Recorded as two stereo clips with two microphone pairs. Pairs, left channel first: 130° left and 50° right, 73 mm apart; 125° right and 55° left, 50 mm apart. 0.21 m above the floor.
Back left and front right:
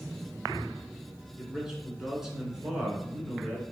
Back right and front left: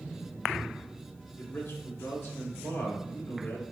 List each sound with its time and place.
1.4 s a man speaking: 135° right, 1.8 m